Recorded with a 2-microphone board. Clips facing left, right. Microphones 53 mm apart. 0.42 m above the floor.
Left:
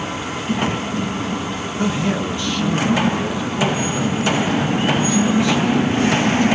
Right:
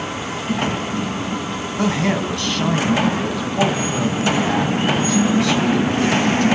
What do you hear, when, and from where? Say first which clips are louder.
1.8 s a man speaking: right 1 dB; 70° right (ahead or behind), 3.5 m